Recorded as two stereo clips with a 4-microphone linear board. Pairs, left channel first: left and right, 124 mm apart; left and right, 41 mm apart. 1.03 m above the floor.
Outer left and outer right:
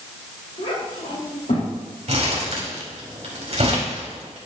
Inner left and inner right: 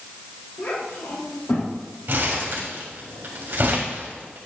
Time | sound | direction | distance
0.6 | a child speaking | 80° left | 3 m
2.1 | crumpling | 55° right (ahead or behind) | 3 m